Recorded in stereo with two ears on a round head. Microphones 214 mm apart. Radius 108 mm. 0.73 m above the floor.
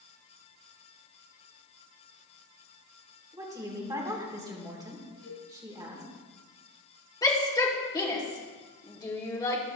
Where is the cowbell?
75° left (ahead or behind), 3.5 m.